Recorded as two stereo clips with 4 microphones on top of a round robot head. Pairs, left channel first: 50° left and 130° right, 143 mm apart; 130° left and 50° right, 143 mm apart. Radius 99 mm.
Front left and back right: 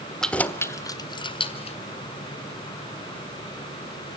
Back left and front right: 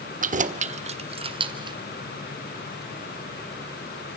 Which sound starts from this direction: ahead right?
Keys jangling, at 0.2 s.